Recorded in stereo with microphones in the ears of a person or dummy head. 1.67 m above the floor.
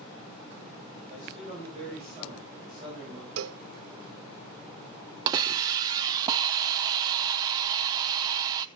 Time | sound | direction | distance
1.1 | a man speaking | 45° right (ahead or behind) | 7.5 m
3.4 | a cowbell | 75° right (ahead or behind) | 0.6 m
5.3 | a hiss | 20° right (ahead or behind) | 0.5 m